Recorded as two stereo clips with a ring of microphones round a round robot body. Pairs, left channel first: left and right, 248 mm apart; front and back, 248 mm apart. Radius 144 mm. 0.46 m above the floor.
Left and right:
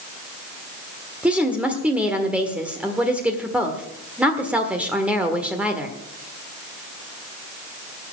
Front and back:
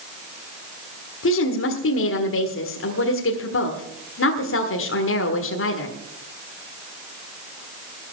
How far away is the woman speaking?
About 1.6 m.